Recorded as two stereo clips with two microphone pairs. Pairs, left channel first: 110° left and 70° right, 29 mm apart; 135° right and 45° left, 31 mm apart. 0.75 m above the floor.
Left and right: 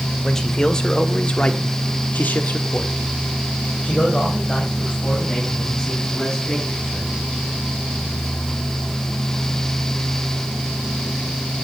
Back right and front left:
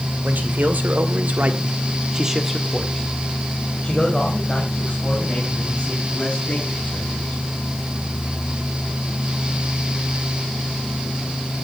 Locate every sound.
0.2 s a man speaking: 35° left, 2.5 m; by 7.4 s straight behind, 7 m